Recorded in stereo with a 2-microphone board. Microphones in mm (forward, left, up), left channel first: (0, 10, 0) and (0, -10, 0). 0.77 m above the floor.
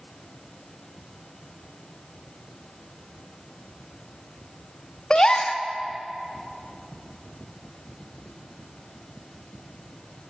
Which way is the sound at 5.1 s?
35° left (ahead or behind).